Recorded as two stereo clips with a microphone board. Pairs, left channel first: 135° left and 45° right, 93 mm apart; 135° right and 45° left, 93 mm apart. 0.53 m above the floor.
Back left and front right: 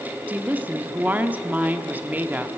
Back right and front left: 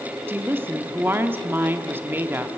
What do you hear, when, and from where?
0.3 s a woman speaking: 5° left, 0.7 m